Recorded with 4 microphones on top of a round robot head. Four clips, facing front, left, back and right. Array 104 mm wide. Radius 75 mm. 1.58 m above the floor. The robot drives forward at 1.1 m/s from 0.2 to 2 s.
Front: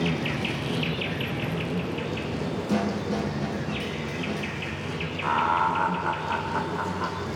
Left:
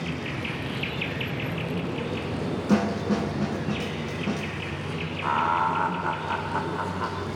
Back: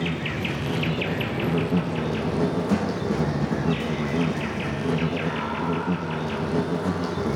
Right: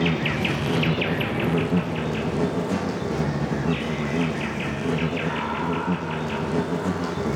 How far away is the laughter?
About 2.5 m.